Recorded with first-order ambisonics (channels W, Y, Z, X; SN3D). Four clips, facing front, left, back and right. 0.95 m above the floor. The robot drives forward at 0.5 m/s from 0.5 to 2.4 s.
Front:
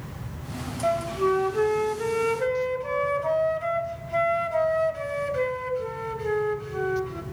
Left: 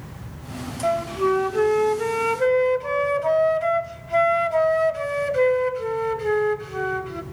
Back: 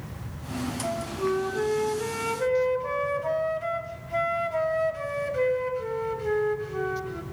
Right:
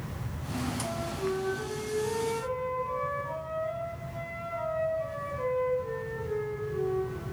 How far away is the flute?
About 1.6 m.